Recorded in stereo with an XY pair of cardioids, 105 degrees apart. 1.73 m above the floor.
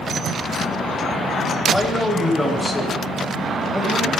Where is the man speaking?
10° left, 10 m.